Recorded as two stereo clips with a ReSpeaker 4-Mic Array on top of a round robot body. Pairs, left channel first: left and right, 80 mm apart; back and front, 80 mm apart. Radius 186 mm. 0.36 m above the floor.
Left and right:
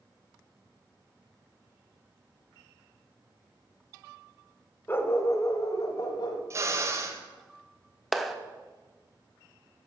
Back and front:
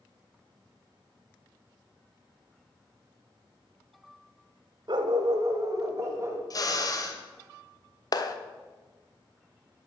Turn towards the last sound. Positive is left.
turn(degrees=180)